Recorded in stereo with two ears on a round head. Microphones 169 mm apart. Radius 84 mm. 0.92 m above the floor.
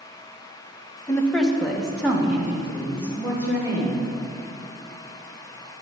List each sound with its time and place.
1.1 s a woman speaking: 15° left (ahead or behind), 0.9 m; by 4.1 s 15° right (ahead or behind), 4 m